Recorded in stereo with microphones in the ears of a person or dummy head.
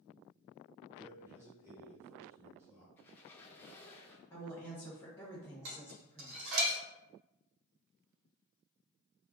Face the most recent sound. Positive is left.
turn(degrees=-75)  # may be behind; listen again after turning